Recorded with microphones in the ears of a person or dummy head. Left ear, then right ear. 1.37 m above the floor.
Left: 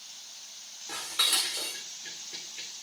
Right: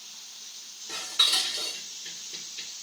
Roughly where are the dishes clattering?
Left.